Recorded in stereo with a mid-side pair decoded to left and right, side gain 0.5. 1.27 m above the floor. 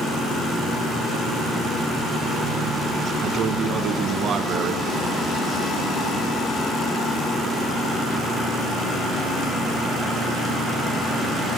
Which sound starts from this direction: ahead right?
A man speaking, at 3.2 s.